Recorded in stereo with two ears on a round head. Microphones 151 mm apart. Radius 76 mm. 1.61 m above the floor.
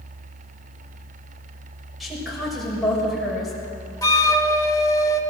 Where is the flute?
20° left (ahead or behind), 1.3 m.